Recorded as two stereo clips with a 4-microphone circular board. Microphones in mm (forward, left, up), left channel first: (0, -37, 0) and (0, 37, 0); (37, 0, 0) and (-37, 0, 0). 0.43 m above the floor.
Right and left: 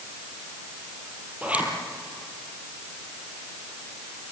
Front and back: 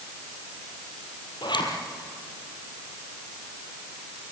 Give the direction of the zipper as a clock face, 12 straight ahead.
11 o'clock.